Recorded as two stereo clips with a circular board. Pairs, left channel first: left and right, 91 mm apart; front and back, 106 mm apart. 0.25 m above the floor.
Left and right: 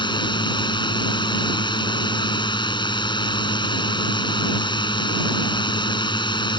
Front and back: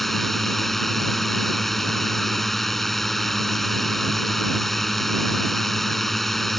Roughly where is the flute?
No flute in this recording.